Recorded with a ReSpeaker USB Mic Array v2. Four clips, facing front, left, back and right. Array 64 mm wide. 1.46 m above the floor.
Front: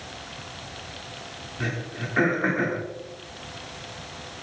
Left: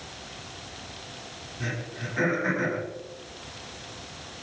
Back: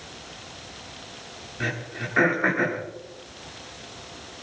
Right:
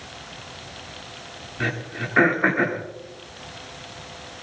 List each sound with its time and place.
1.6 s throat clearing: 100° right, 3 m